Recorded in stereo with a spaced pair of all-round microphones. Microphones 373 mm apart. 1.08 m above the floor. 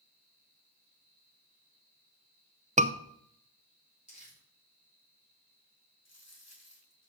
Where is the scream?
20° right (ahead or behind), 0.7 m.